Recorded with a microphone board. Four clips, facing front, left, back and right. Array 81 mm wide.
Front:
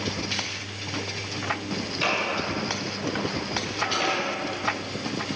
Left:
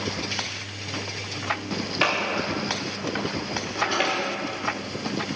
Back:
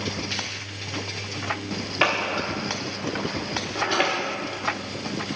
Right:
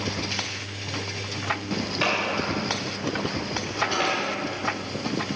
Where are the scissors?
165° left, 1.3 m.